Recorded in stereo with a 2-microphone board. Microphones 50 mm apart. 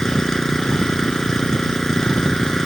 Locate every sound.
0.0 s an engine running: 15° left (ahead or behind)